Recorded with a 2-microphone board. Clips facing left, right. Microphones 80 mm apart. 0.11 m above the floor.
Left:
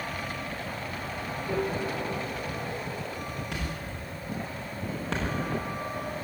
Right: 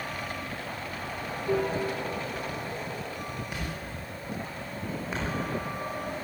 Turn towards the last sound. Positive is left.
turn(degrees=85)